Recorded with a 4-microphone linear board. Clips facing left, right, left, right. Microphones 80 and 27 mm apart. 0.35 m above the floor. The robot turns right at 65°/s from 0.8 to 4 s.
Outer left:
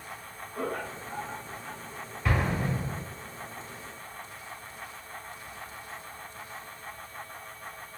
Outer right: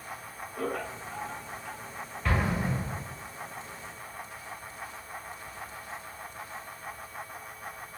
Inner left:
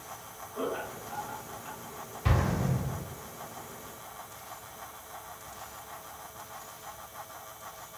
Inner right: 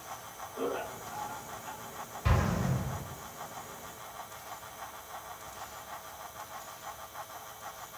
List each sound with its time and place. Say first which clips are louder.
0.6 s laughter: even, inner left 1 dB; 30° left (ahead or behind), 1.4 m; by 1.8 s 25° left (ahead or behind), 1.4 m
2.2 s an explosion: even, inner left 1 dB; 5° left (ahead or behind), 1.0 m; by 3.0 s 35° right (ahead or behind), 1.0 m